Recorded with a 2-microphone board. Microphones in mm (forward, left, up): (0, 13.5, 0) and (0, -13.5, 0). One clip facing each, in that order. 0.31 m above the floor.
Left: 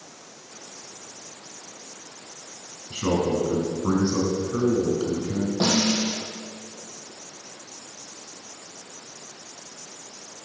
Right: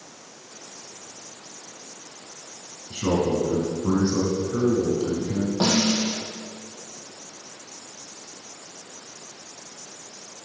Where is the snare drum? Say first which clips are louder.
Right 1 dB; 20° right (ahead or behind), 3 m.